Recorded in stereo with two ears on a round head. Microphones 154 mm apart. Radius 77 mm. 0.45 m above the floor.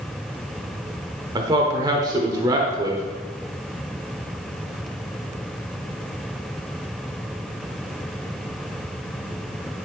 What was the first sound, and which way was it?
A man speaking, 25° right (ahead or behind).